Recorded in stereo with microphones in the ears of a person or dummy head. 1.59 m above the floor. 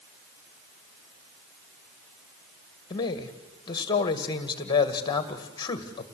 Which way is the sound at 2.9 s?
25° left (ahead or behind).